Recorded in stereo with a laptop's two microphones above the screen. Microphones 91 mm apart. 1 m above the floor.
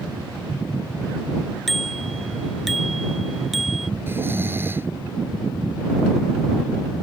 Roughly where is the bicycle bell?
Centre.